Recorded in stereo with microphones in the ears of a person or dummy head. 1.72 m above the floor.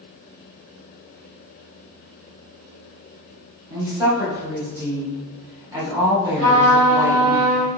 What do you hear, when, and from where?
3.7 s a woman speaking: 10° right (ahead or behind), 2.5 m
6.4 s a trumpet: 75° right (ahead or behind), 2 m